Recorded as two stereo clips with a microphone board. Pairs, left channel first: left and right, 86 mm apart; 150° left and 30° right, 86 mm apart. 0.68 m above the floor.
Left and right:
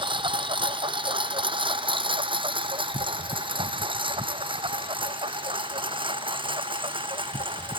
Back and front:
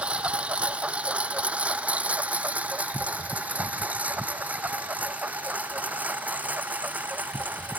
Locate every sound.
0.0 s a lawn mower: 105° right; by 7.8 s 100° right